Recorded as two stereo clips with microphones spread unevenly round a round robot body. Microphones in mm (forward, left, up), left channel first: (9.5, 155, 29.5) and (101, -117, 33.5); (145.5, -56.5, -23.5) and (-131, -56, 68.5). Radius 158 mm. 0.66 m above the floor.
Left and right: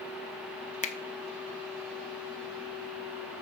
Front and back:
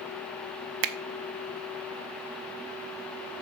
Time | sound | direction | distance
0.8 | a finger snap | 170° left | 0.7 m